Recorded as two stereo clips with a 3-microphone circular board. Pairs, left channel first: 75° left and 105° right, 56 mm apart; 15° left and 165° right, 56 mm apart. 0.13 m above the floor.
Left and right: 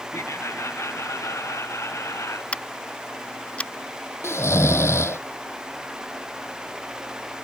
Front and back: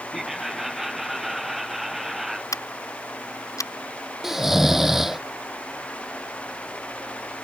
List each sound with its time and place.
0.1 s laughter: 110° left
2.5 s scissors: 5° left
4.2 s snoring: 110° left